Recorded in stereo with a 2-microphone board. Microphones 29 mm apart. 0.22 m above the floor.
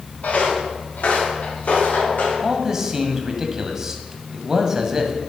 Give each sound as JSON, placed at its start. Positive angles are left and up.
{"t": 0.2, "sound": "footsteps", "side_deg": 75, "distance_m": 4.0}
{"t": 2.4, "sound": "a man speaking", "side_deg": -20, "distance_m": 1.3}